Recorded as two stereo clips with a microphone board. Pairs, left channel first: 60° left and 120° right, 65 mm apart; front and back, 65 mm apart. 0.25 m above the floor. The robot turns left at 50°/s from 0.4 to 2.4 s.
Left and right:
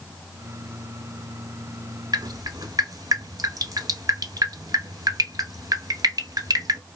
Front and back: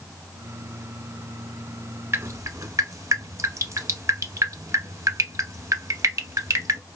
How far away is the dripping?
About 0.7 m.